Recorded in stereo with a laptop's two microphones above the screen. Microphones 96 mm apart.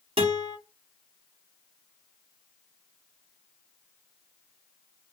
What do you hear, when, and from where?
0.2 s a guitar: 75° right (ahead or behind), 1.0 m